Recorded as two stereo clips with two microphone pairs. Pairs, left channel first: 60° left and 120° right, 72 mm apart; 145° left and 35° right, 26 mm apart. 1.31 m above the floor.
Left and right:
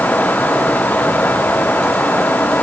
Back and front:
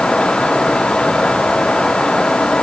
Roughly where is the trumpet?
No trumpet in this recording.